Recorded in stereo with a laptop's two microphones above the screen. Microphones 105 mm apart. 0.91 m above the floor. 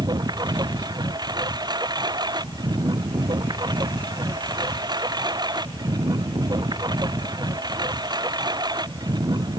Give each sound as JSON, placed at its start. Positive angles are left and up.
{"t": 0.0, "sound": "a lawn mower", "side_deg": -40}